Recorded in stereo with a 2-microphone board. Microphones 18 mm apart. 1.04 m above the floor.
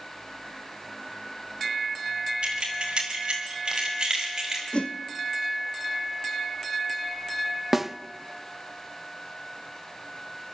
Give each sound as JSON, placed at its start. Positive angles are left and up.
{"t": 2.4, "sound": "keys jangling", "side_deg": -65, "distance_m": 5.0}
{"t": 4.7, "sound": "a whoosh", "side_deg": 75, "distance_m": 0.8}
{"t": 7.7, "sound": "a snare drum", "side_deg": -10, "distance_m": 0.6}